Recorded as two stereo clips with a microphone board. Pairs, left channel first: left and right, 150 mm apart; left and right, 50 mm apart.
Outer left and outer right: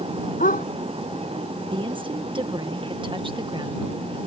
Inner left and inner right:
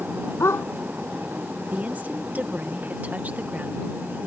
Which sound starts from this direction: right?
A woman speaking, at 1.7 s.